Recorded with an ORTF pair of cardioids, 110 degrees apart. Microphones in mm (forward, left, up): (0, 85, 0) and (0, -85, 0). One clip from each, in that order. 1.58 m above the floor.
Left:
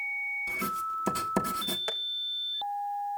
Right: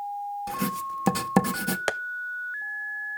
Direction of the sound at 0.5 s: 40° right.